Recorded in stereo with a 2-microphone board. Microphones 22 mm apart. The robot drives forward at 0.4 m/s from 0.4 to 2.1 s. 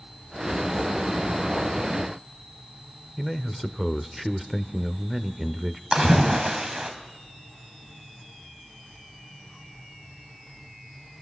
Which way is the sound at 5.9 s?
45° right (ahead or behind).